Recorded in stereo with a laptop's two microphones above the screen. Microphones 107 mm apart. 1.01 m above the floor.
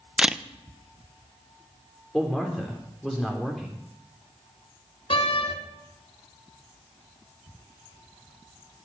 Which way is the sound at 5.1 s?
55° left (ahead or behind).